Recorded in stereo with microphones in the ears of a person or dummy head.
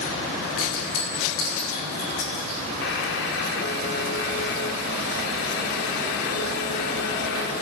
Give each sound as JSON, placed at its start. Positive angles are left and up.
{"t": 0.6, "sound": "a clink", "side_deg": 50, "distance_m": 6.0}
{"t": 2.8, "sound": "a buzzer", "side_deg": 65, "distance_m": 1.2}